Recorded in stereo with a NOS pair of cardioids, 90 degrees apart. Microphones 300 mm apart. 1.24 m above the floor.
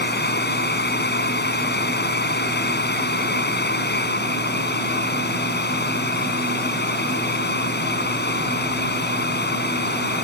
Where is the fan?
35° left.